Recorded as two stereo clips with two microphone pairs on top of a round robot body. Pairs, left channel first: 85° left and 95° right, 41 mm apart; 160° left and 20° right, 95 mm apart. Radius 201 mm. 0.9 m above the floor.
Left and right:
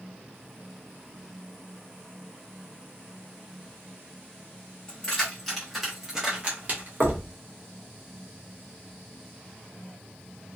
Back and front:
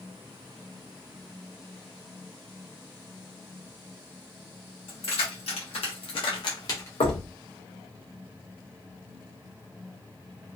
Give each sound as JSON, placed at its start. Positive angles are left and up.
{"t": 4.9, "sound": "keys jangling", "azimuth_deg": 160, "distance_m": 1.5}
{"t": 7.0, "sound": "knocking", "azimuth_deg": -175, "distance_m": 0.8}